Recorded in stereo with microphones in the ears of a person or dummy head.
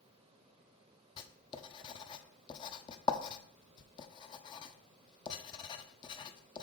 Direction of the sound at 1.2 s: 30° left (ahead or behind).